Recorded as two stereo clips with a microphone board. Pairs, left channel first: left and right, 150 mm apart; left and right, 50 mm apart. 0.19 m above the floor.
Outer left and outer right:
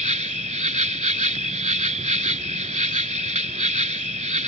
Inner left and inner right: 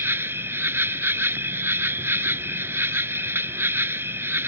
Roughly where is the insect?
Right.